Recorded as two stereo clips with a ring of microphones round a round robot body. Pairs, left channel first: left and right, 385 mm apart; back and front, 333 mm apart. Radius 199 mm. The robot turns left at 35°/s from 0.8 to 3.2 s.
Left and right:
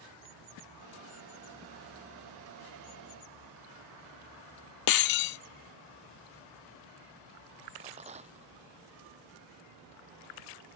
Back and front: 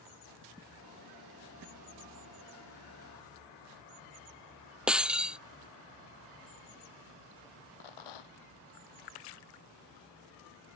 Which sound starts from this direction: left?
Breaking glass, at 4.9 s.